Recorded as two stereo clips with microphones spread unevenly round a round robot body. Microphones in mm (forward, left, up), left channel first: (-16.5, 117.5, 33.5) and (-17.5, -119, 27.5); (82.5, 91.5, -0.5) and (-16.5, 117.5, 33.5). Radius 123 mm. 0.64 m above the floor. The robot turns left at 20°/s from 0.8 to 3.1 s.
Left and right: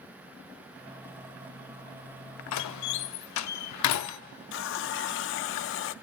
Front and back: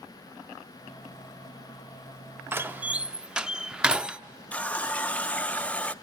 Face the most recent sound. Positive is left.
turn(degrees=55)